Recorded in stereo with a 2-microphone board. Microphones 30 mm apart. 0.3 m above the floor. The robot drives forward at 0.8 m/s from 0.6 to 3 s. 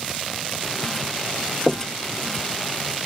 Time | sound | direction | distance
1.7 | knocking | 5° right (ahead or behind) | ?